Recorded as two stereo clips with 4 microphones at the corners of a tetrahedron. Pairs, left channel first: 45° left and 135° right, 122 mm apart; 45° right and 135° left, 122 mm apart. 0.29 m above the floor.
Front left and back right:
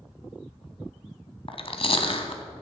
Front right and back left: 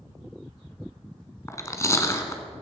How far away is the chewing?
About 1.4 m.